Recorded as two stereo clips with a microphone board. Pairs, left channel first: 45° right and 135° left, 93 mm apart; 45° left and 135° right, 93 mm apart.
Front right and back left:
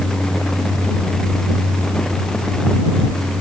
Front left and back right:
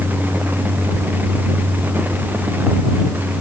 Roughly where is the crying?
I don't hear crying.